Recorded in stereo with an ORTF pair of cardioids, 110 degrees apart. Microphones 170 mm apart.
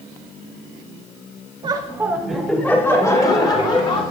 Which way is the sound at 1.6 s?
30° right.